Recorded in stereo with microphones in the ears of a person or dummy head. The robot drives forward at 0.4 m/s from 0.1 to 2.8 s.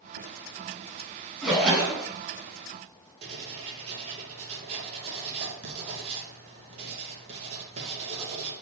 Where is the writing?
35° right (ahead or behind), 0.6 m.